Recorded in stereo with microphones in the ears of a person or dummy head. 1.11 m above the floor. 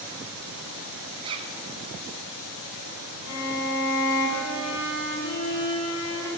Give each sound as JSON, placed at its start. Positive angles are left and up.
{"t": 1.2, "sound": "a zipper", "side_deg": -20, "distance_m": 1.2}
{"t": 3.2, "sound": "a violin", "side_deg": 80, "distance_m": 4.5}